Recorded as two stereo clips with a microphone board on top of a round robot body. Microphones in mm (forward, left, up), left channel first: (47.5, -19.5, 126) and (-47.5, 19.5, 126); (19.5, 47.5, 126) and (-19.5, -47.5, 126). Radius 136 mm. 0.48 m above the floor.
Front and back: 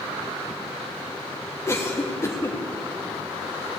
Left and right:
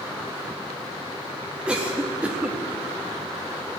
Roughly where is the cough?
Ahead right.